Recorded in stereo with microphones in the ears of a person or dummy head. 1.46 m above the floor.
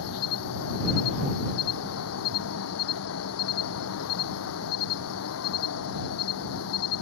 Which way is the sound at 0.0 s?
80° left.